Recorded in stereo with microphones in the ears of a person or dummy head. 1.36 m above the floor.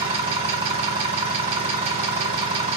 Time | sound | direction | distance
0.0 | an engine running | 25° right (ahead or behind) | 0.9 m